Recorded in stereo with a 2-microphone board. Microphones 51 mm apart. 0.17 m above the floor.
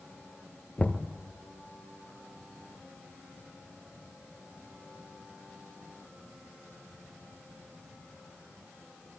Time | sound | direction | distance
0.8 | knocking | 30° left (ahead or behind) | 1.8 m